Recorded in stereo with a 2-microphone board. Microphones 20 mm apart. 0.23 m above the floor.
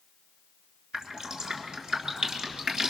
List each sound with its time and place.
0.9 s dripping: 40° right (ahead or behind), 3.5 m